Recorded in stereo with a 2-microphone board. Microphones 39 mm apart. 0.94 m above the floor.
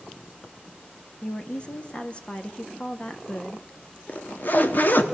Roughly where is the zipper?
Left.